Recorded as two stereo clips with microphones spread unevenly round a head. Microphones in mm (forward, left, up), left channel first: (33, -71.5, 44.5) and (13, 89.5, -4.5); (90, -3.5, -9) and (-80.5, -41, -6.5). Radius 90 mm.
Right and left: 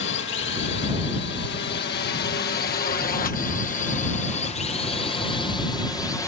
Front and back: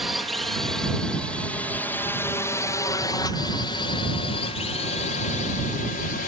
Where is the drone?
80° right; by 6.3 s straight ahead.